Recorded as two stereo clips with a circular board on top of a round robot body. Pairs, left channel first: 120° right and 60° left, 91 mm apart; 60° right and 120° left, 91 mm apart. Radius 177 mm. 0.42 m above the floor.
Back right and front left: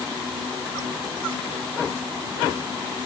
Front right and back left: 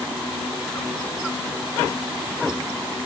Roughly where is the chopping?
No chopping in this recording.